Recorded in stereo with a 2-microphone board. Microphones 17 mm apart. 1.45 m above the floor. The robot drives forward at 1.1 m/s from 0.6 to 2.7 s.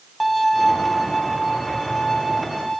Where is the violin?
Centre (ahead or behind), 0.7 m.